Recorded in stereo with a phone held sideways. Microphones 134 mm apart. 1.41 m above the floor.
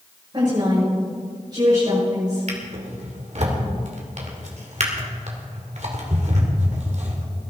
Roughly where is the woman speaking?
Right.